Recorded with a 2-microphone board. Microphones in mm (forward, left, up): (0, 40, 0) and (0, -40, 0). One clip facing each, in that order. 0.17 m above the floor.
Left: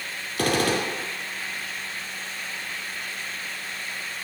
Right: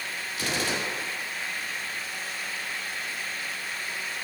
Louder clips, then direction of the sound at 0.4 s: Left 7 dB; 65° left (ahead or behind).